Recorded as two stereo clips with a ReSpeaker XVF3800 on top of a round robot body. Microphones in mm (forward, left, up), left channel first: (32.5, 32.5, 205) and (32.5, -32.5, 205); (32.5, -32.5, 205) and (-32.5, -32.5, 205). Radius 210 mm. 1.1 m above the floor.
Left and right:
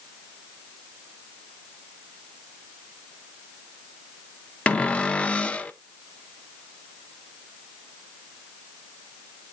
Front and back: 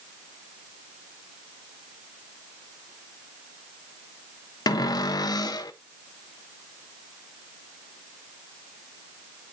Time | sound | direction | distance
4.7 | a cupboard door | 15° left | 0.7 m